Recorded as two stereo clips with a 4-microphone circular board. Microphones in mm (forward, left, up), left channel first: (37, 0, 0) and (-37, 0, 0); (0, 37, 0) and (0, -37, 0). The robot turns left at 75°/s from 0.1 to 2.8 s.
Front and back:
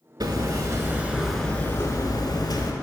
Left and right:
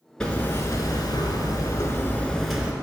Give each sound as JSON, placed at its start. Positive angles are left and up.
{"t": 0.2, "sound": "hammering", "azimuth_deg": 170, "distance_m": 0.7}